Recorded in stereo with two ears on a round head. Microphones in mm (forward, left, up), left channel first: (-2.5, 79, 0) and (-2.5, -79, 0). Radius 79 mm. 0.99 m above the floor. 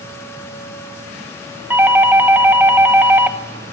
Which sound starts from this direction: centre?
A doorbell, at 1.7 s.